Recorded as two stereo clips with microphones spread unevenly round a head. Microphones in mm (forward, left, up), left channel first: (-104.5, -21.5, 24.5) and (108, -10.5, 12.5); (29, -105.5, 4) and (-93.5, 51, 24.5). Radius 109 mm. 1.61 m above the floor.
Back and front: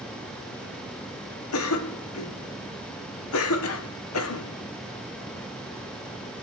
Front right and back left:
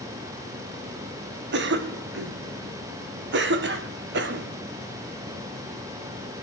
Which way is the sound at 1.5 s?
155° left.